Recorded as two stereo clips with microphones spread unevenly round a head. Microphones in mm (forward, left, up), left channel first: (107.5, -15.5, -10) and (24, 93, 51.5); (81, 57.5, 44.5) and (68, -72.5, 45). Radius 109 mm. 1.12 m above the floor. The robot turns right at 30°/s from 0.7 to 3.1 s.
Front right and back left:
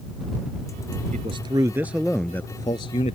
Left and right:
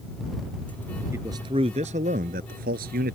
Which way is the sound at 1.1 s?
175° right.